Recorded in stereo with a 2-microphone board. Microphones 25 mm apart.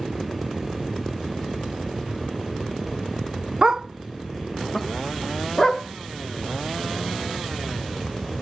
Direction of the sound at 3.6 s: 30° right (ahead or behind).